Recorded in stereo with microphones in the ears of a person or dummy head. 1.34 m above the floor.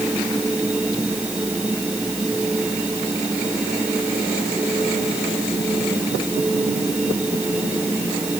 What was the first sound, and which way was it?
A machine running, centre (ahead or behind).